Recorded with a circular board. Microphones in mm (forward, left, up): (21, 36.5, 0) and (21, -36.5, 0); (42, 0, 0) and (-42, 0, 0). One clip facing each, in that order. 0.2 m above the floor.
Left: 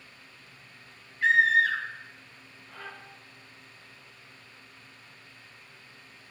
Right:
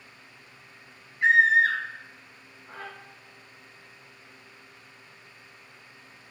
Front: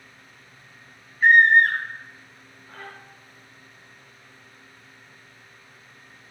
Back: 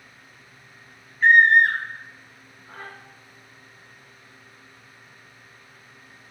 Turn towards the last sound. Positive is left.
turn(degrees=-130)